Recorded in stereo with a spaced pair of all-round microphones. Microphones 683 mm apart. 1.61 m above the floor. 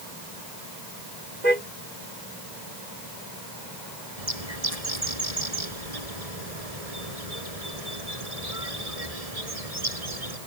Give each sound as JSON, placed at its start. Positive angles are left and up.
{"t": 1.4, "sound": "a car horn", "side_deg": -85}
{"t": 4.2, "sound": "a bird", "side_deg": -60}